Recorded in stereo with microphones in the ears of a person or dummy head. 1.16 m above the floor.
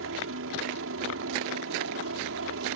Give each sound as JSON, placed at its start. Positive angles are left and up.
{"t": 0.0, "sound": "a helicopter", "side_deg": -65}